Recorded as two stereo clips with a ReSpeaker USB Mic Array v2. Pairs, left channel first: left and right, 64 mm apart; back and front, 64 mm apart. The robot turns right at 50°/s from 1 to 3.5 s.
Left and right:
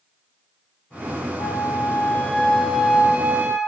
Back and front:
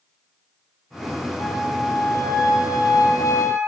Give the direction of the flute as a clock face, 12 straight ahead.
8 o'clock.